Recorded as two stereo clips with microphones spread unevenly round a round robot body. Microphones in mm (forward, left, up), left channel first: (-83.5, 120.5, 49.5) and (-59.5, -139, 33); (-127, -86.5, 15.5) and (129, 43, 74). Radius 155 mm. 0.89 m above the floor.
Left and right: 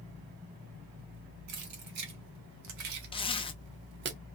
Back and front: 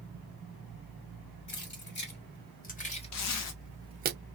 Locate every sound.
1.5 s keys jangling: 105° right, 2.5 m; by 4.1 s 30° right, 0.7 m
3.1 s a zipper: 165° left, 0.7 m